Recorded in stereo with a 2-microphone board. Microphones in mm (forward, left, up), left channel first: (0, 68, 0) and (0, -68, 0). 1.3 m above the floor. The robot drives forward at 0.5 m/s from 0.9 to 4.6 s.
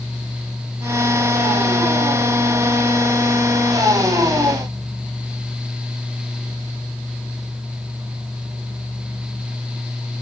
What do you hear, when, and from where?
Only background noise.